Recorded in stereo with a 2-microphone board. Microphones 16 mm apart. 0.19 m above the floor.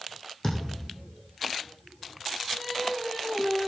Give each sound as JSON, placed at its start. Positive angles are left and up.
{"t": 0.4, "sound": "a thud", "side_deg": 25, "distance_m": 4.0}
{"t": 2.6, "sound": "singing", "side_deg": 5, "distance_m": 1.5}